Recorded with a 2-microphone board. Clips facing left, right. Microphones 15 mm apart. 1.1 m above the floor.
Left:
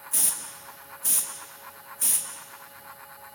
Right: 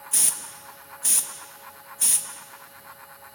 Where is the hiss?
45° right (ahead or behind), 1.6 m.